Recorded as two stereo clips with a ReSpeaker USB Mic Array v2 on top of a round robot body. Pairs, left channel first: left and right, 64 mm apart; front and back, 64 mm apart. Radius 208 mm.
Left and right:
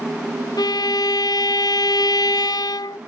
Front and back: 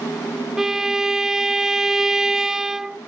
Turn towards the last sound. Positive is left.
turn(degrees=95)